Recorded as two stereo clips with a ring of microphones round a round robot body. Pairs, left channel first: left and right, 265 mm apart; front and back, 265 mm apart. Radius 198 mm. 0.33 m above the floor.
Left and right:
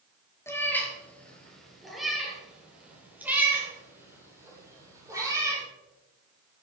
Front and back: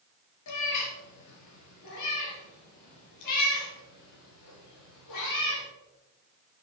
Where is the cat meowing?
10° left, 3 m; by 5.6 s 15° right, 5.5 m.